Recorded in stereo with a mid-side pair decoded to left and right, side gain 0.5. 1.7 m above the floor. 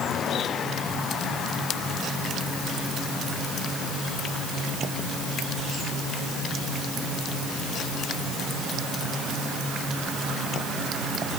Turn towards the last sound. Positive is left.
No sound to turn to.